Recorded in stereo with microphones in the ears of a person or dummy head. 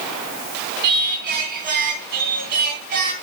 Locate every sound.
0.8 s singing: 55° right (ahead or behind), 3 m